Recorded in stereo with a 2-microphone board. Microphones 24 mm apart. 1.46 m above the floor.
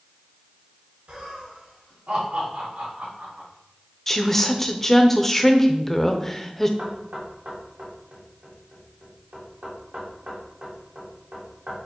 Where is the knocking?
80° right, 2 m.